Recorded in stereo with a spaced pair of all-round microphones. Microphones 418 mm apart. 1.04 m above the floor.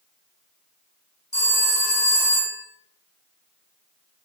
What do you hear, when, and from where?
1.3 s a phone ringing: 25° left (ahead or behind), 1.0 m